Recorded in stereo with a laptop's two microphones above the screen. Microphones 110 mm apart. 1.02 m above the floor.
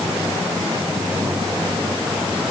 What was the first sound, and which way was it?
Only background noise.